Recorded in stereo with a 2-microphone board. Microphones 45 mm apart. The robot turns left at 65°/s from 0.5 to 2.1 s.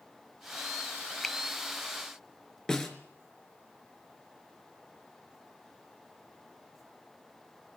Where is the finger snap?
5° left (ahead or behind), 1.3 m; by 1.4 s centre (ahead or behind), 1.3 m.